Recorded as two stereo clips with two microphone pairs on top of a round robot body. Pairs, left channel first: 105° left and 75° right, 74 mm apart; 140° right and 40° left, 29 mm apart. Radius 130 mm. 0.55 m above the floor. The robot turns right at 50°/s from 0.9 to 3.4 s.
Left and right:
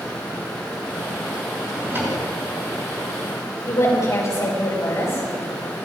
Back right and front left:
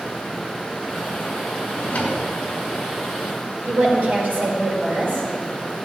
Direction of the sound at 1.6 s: 150° right.